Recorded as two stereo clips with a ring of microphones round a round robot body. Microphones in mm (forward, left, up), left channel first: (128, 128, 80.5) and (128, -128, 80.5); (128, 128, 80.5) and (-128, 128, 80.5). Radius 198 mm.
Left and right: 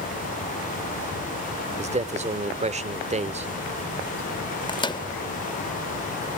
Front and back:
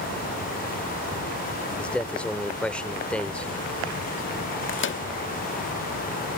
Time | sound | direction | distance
1.8 | a man speaking | 80° right | ?
4.7 | a microwave | 20° left | ?